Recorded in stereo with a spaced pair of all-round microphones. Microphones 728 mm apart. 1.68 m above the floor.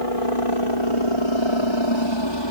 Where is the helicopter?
45° left (ahead or behind); by 2.5 s 30° left (ahead or behind).